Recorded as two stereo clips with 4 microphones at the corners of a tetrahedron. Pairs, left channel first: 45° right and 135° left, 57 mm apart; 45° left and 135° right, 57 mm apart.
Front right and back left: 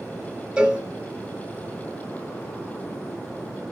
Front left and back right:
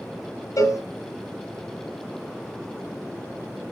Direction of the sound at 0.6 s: 60° left.